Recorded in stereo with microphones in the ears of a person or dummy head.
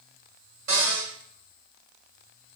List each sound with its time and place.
0.7 s a cupboard door: 45° right (ahead or behind), 2 m